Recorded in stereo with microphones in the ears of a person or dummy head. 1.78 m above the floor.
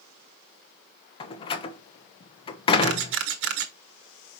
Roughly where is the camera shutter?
Right.